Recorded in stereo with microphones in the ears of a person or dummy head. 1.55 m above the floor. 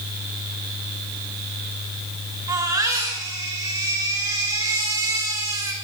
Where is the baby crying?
20° right (ahead or behind), 5.5 m.